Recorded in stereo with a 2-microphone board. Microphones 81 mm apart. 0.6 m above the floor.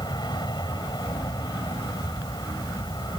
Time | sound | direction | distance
0.0 | an aircraft | 60° left (ahead or behind) | ?